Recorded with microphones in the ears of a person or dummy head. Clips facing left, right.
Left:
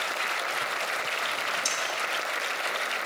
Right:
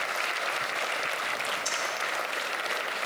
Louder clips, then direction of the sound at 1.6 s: Even; 85° left.